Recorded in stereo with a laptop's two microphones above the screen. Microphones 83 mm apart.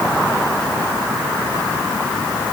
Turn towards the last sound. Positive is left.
No sound to turn to.